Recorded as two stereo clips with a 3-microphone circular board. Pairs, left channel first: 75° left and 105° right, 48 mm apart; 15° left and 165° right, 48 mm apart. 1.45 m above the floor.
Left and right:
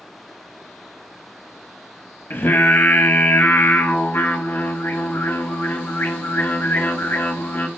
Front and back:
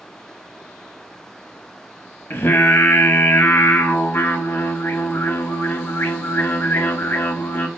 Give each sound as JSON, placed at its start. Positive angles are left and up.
{"t": 2.3, "sound": "singing", "azimuth_deg": 50, "distance_m": 1.1}